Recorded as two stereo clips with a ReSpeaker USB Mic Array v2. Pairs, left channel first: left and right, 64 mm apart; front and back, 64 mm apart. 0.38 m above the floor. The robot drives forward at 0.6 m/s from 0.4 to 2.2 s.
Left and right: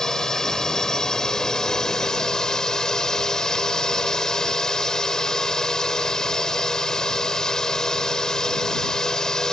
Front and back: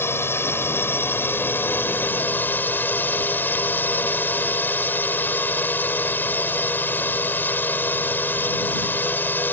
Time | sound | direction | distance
0.0 | a drone | 15° left | ?